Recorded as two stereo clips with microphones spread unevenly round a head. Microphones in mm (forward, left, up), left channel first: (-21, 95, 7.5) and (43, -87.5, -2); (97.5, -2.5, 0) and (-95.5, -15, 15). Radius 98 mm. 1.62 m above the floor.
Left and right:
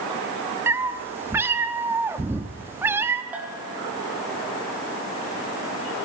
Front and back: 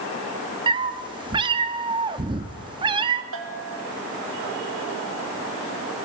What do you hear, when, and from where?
0.7 s a cat meowing: 145° right, 1.2 m
3.3 s a bell: 155° right, 3 m